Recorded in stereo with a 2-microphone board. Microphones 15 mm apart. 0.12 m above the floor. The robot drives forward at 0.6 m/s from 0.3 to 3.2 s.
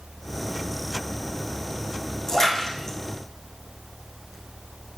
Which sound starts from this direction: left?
A splash, at 2.3 s.